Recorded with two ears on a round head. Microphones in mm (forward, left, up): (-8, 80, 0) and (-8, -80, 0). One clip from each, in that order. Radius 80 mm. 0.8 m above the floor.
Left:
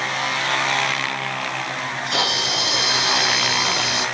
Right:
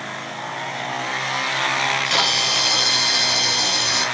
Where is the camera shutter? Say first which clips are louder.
Right 1 dB; 75° right (ahead or behind), 3 m.